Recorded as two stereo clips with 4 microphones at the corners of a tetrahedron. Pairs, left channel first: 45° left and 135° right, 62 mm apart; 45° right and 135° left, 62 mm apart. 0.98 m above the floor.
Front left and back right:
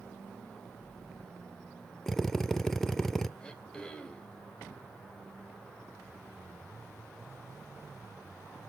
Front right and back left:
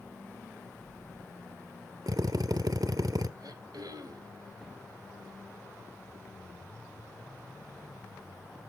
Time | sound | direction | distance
2.1 | a drill | 130° left | 1.1 m
3.4 | throat clearing | 120° left | 3 m